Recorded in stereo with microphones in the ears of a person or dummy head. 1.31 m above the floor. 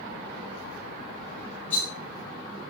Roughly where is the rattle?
Left.